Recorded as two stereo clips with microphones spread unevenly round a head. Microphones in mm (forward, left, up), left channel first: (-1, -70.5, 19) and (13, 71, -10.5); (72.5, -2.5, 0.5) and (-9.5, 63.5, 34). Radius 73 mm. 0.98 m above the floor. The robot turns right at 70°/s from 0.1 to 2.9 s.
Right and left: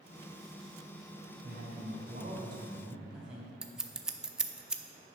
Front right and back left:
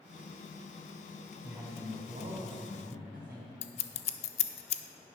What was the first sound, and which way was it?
A man speaking, 70° left.